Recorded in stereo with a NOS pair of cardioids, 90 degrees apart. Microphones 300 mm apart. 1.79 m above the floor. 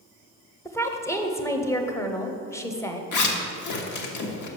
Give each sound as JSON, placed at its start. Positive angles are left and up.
{"t": 0.7, "sound": "a woman speaking", "azimuth_deg": 10, "distance_m": 0.9}
{"t": 3.1, "sound": "a zipper", "azimuth_deg": 70, "distance_m": 1.1}